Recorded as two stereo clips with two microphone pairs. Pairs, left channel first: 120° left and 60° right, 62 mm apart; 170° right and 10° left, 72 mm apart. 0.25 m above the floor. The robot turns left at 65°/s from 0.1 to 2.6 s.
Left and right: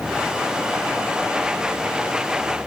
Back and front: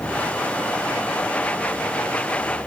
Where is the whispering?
No whispering in this recording.